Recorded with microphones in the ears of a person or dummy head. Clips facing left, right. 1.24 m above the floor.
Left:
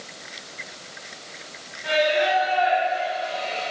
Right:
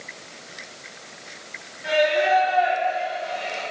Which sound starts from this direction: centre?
Singing, at 1.8 s.